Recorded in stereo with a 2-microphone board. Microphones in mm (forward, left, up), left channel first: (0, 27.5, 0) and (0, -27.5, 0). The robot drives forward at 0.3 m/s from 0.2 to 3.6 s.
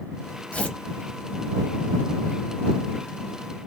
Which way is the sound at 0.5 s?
20° left (ahead or behind).